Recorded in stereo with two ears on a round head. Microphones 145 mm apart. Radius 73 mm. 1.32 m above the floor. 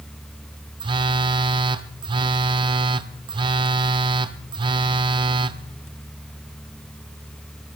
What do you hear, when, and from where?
0.8 s a phone buzzing: 30° right (ahead or behind), 0.7 m